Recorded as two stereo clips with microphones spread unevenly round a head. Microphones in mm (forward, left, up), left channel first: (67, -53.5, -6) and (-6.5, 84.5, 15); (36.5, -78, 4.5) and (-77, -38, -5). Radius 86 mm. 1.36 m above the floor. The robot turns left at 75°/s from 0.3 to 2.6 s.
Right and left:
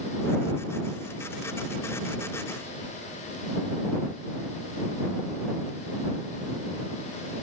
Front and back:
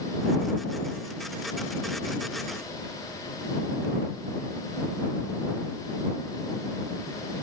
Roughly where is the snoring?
No snoring in this recording.